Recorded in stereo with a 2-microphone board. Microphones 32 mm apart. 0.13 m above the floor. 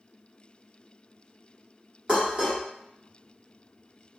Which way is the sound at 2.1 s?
35° right (ahead or behind).